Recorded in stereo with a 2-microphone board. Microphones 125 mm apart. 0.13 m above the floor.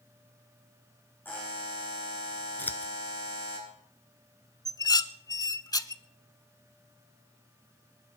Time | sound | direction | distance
1.2 | a buzzer | 15° left (ahead or behind) | 7 m
2.6 | scissors | 15° left (ahead or behind) | 1.0 m
4.7 | dishes clattering | 30° left (ahead or behind) | 0.8 m